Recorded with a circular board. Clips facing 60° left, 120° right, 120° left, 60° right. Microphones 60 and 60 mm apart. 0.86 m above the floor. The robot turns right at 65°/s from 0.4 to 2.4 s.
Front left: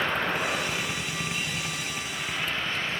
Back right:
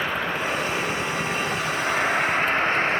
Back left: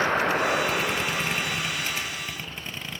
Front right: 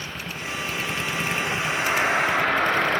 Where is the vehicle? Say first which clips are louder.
Back right 1 dB, back left 11 dB; 155° left; by 3.0 s 75° right.